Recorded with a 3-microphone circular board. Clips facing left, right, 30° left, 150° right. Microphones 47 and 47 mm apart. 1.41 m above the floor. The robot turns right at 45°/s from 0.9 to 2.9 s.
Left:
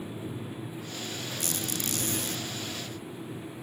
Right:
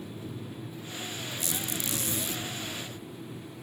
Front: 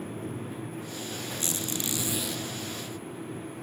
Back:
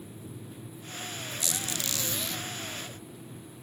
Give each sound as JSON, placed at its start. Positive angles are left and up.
{"t": 1.4, "sound": "a squeak", "azimuth_deg": 75, "distance_m": 0.6}